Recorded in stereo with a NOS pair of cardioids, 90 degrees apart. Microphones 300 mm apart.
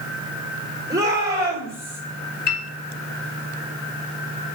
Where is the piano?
35° left, 3 m.